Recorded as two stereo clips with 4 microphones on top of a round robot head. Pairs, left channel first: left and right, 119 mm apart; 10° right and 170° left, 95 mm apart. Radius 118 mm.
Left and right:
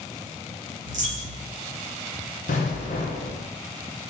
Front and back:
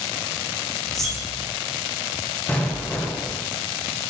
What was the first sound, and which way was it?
A dropped coin, 70° right.